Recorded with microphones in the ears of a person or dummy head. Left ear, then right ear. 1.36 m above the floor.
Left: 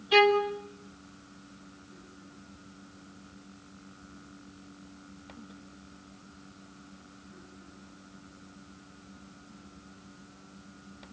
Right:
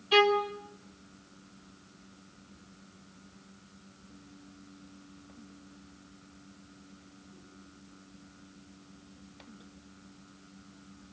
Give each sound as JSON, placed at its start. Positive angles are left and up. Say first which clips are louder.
{"t": 0.1, "sound": "a violin", "louder": "left 2 dB", "side_deg": -5, "distance_m": 2.5}